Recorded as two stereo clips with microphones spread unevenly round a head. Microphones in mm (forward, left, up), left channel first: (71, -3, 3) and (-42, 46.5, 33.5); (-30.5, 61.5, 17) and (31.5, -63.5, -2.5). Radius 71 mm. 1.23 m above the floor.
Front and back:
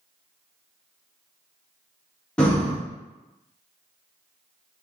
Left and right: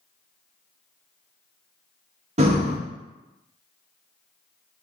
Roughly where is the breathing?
Right.